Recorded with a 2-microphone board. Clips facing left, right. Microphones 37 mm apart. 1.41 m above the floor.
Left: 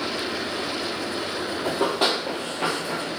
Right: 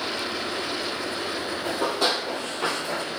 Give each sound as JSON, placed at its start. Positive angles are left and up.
{"t": 1.6, "sound": "running footsteps", "side_deg": 45, "distance_m": 1.9}